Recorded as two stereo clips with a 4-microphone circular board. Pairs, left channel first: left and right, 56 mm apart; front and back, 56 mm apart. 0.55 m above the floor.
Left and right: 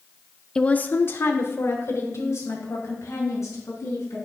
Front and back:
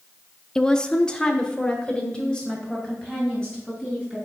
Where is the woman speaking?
50° left, 0.6 m; by 4.3 s 75° left, 4.5 m.